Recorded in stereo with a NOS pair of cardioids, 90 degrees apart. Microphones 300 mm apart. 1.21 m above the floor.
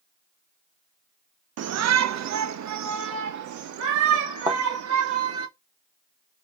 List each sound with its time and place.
1.6 s a shout: 55° right, 1.0 m; by 5.5 s 80° right, 3 m
4.5 s a thud: 15° right, 1.6 m